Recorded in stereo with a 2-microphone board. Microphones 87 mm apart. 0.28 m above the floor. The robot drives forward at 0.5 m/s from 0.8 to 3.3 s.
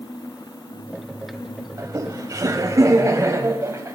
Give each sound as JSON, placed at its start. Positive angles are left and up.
{"t": 1.8, "sound": "laughter", "side_deg": -40, "distance_m": 1.1}